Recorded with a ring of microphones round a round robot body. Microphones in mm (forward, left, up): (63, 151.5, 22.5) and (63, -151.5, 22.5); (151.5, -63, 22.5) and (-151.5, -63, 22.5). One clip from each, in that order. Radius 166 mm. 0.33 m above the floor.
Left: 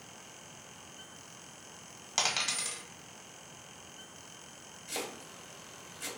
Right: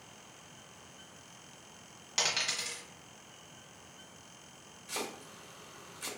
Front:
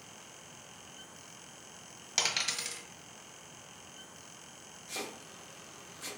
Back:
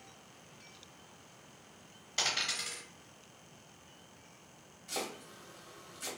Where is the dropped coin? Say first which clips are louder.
Even, front 1 dB; 25° left, 1.2 m.